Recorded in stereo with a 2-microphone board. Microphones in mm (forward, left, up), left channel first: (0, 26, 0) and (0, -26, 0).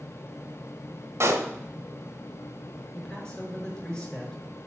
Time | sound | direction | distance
1.2 | a pop | 55° right (ahead or behind) | 1.7 m
2.9 | a man speaking | 15° left (ahead or behind) | 5.5 m